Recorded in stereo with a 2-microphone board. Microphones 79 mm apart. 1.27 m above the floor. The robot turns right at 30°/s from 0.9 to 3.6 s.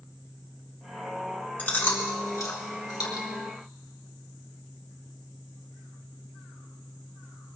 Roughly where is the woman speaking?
I don't hear a woman speaking.